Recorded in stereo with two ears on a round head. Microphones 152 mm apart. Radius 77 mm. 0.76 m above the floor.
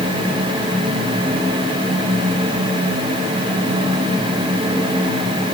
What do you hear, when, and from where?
Only background noise.